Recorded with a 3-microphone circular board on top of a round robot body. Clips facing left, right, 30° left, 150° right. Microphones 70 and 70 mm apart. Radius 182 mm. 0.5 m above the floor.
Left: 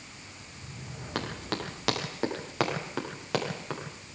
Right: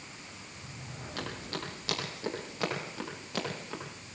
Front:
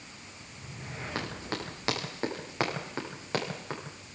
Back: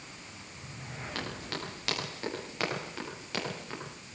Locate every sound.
1.1 s running footsteps: 95° left, 8.5 m; by 3.8 s 85° left, 9.5 m